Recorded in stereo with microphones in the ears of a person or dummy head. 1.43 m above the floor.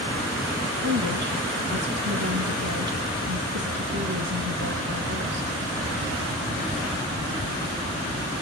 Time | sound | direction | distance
0.8 | a woman speaking | 55° right (ahead or behind) | 1.7 m